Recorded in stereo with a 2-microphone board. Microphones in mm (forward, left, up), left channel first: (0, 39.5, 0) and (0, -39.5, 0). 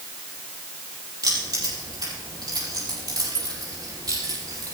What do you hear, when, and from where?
1.2 s keys jangling: 60° right (ahead or behind), 5 m